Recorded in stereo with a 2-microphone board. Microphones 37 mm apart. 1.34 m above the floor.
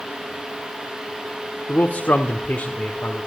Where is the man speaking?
55° left (ahead or behind), 0.7 m; by 3.3 s 40° left (ahead or behind), 1.1 m.